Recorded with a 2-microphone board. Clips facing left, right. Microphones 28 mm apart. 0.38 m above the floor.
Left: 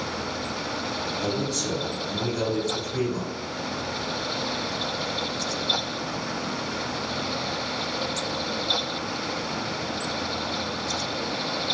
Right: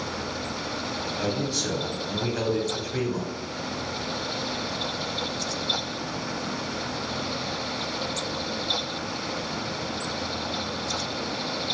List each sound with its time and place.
1.2 s a man speaking: 25° right (ahead or behind), 1.6 m